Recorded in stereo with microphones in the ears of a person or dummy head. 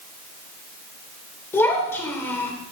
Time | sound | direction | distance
1.5 | a child speaking | 15° left (ahead or behind) | 2.5 m